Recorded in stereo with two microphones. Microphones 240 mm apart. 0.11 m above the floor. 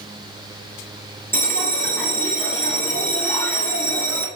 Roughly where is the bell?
Centre.